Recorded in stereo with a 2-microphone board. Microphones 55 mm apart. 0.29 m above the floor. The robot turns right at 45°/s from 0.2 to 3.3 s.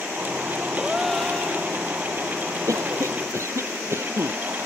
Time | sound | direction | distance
0.8 | a gasp | 10° right | ?
2.7 | a cough | 80° right | ?